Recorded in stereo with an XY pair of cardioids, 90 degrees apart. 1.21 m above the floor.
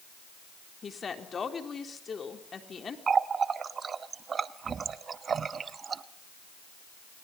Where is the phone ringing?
No phone ringing in this recording.